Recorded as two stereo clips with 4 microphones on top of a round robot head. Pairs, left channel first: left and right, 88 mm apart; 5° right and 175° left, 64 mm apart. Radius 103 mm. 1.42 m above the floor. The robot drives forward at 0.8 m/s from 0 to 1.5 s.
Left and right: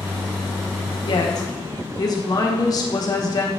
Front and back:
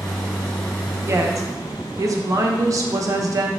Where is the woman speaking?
120° left, 0.9 m; by 3.5 s 140° left, 1.1 m.